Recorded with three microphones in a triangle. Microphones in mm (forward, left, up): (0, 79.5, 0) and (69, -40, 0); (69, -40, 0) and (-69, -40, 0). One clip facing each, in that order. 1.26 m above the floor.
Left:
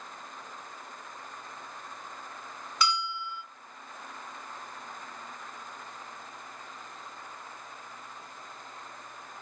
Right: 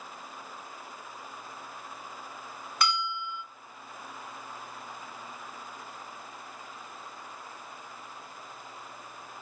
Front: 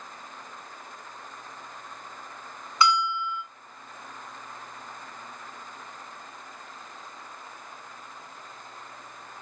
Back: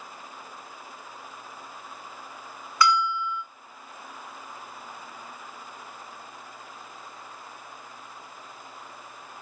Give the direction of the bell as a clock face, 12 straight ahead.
2 o'clock.